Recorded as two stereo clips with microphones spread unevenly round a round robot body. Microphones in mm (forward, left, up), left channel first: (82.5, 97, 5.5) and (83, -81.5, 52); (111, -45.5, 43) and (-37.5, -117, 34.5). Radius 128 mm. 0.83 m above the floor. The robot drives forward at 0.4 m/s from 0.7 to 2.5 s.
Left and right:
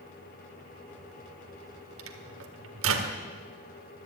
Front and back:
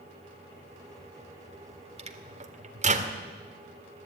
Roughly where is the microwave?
Right.